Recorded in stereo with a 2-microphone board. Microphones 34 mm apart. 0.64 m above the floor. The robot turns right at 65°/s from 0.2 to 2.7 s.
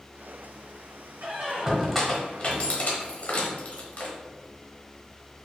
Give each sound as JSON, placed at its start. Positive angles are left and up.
{"t": 1.2, "sound": "a squeak", "side_deg": -40, "distance_m": 0.9}